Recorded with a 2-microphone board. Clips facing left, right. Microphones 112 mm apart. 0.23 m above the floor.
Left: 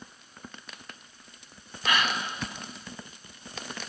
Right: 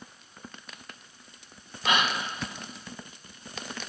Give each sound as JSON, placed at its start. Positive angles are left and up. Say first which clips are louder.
{"t": 1.9, "sound": "a gasp", "louder": "right 1 dB", "side_deg": -20, "distance_m": 1.3}